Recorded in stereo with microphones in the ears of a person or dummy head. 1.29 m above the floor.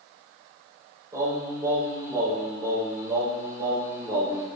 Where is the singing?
20° right (ahead or behind), 5 m.